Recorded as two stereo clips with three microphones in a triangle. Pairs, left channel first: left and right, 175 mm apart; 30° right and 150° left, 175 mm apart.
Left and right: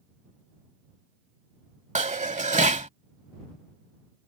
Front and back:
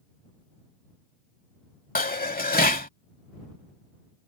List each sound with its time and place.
1.9 s dishes clattering: 50° right